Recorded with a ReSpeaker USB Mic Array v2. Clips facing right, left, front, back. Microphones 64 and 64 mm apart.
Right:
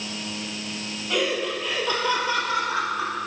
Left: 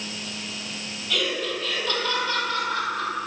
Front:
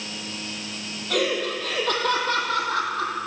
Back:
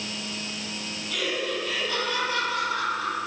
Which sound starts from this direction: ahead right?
Laughter, at 1.1 s.